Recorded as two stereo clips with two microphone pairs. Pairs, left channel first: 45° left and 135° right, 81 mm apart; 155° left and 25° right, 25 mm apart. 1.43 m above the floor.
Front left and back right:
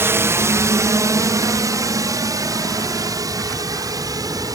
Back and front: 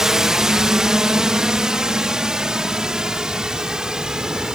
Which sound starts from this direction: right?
A drone, at 0.0 s.